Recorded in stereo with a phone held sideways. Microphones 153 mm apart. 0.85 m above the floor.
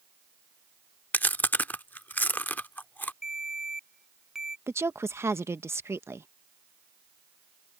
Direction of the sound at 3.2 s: Centre (ahead or behind).